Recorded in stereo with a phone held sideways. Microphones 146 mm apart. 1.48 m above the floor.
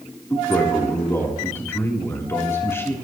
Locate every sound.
0.3 s a man speaking: 20° left (ahead or behind), 3.5 m